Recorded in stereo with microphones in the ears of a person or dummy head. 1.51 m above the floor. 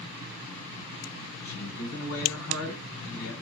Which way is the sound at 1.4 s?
70° left (ahead or behind).